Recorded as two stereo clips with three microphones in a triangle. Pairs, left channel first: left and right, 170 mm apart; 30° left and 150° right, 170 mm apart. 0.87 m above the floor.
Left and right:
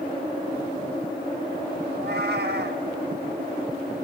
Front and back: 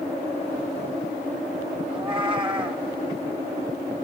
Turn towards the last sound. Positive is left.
turn(degrees=-90)